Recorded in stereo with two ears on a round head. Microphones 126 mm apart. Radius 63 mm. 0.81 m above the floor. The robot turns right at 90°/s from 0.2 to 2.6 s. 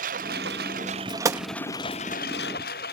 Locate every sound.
0.0 s a lawn mower: 115° right; by 2.9 s 100° left
1.2 s a gunshot: 25° right (ahead or behind); by 1.5 s 35° right (ahead or behind)